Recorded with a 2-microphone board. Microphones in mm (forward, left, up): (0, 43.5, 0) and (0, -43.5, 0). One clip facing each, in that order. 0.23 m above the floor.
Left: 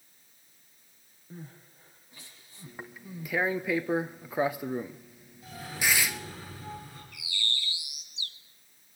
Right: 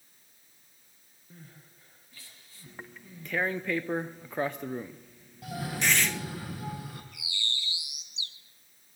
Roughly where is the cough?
Right.